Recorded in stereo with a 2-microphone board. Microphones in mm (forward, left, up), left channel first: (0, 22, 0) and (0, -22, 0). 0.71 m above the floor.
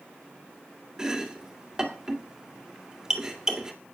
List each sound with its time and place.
1.0 s chopping: 15° right (ahead or behind), 1.9 m